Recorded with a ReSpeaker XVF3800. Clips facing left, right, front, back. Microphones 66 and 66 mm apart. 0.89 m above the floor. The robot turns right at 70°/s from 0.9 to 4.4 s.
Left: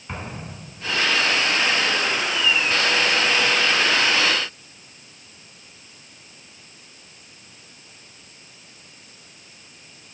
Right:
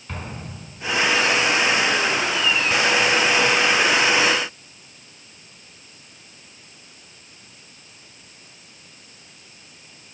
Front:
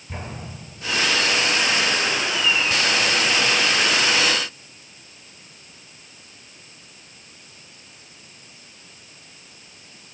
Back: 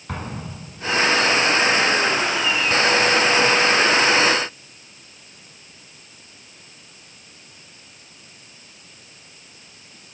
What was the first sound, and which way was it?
An explosion, 165° left.